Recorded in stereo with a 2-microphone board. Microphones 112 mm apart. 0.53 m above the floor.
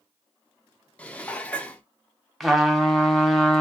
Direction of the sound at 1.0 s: 10° left (ahead or behind).